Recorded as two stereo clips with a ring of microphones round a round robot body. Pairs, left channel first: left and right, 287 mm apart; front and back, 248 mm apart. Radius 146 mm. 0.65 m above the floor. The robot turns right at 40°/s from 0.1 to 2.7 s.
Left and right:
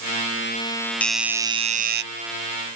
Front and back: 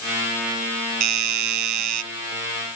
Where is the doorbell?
175° left; by 2.0 s 145° right.